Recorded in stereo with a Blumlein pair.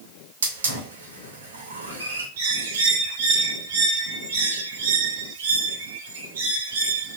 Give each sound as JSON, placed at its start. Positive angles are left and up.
{"t": 0.4, "sound": "a hiss", "azimuth_deg": -70, "distance_m": 1.5}
{"t": 2.4, "sound": "a bird", "azimuth_deg": -60, "distance_m": 1.2}